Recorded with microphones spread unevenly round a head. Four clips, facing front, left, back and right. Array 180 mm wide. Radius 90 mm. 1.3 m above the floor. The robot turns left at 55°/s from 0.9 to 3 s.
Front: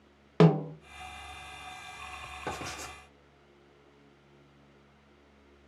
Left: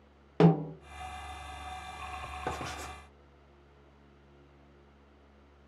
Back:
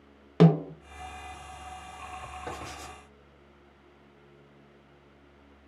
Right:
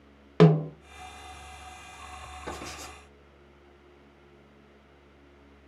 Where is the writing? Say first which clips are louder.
Left 2 dB, front 5 dB; 50° left, 1.4 m; by 3.0 s 25° left, 1.4 m.